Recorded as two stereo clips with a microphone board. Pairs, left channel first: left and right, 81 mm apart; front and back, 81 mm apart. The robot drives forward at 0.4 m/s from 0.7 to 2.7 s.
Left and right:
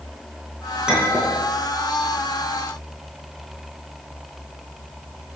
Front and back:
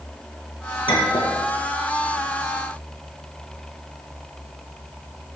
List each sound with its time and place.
0.9 s a clink: 10° right, 3 m